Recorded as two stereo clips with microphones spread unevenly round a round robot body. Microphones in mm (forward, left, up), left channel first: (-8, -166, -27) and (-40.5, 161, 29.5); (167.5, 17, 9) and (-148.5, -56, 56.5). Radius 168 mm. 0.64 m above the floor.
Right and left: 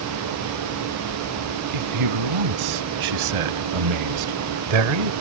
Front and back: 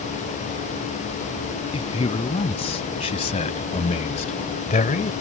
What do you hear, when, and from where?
1.7 s a man speaking: 90° left; by 5.1 s 80° left